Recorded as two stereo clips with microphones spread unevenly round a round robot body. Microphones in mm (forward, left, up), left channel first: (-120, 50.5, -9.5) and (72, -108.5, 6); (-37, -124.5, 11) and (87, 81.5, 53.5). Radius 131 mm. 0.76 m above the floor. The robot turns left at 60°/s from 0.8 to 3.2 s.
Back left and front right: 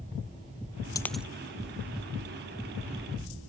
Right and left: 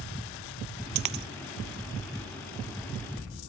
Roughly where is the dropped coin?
Ahead left.